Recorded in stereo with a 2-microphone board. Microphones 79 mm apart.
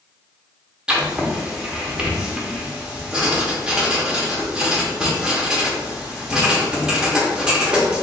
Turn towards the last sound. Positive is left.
turn(degrees=-10)  # may be behind; listen again after turning